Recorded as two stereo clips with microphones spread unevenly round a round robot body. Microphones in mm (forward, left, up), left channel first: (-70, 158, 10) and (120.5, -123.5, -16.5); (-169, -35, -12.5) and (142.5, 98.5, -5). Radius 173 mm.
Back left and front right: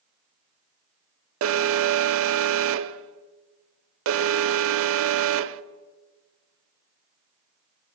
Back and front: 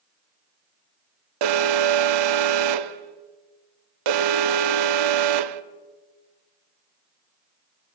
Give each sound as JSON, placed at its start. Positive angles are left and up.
{"t": 1.4, "sound": "an alarm", "azimuth_deg": -5, "distance_m": 0.8}